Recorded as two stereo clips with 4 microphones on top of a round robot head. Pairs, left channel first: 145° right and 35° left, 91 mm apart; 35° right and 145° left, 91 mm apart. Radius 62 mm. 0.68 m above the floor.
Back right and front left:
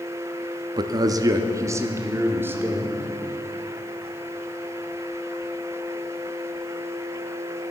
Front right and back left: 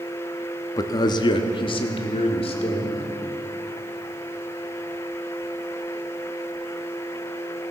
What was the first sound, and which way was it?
A man speaking, 10° left.